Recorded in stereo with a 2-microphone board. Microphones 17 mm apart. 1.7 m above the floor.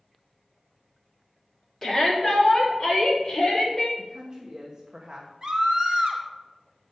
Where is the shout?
20° left (ahead or behind), 3.5 m; by 3.9 s 35° left (ahead or behind), 6 m.